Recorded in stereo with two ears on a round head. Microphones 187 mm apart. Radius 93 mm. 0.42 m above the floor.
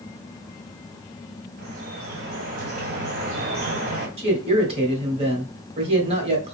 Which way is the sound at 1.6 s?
45° right (ahead or behind).